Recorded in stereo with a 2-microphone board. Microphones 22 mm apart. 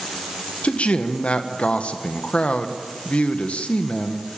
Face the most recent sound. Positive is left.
turn(degrees=70)  # may be behind; listen again after turning